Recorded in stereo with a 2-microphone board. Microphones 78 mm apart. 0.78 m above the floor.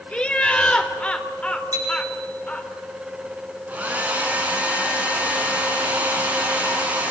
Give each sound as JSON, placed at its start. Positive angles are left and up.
{"t": 0.1, "sound": "laughter", "side_deg": 15, "distance_m": 3.5}
{"t": 1.7, "sound": "a bicycle bell", "side_deg": -55, "distance_m": 7.0}
{"t": 3.7, "sound": "a hair dryer", "side_deg": -20, "distance_m": 7.0}